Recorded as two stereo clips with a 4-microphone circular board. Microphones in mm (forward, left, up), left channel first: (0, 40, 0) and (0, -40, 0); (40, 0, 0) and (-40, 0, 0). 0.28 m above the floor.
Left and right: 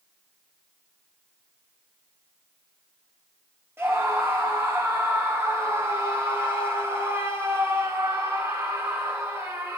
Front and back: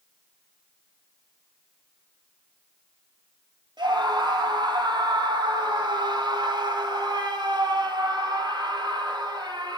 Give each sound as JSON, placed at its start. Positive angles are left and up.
{"t": 3.8, "sound": "a scream", "azimuth_deg": -150, "distance_m": 6.0}